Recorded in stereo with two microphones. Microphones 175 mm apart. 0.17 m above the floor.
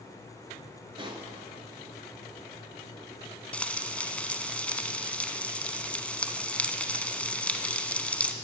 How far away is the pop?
About 1.4 m.